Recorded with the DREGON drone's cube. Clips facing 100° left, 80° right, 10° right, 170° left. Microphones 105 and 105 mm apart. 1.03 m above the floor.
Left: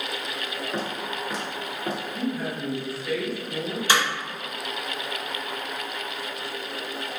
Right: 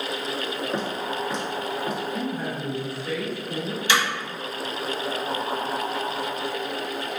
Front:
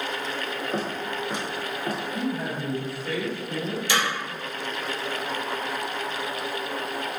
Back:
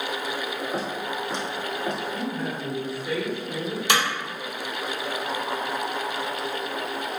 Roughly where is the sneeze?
I don't hear a sneeze.